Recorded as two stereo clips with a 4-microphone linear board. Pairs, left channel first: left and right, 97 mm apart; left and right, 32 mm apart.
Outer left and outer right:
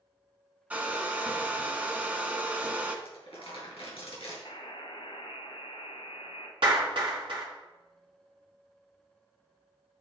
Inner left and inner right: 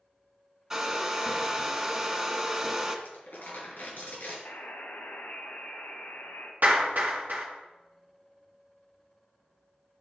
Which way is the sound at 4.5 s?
75° left (ahead or behind).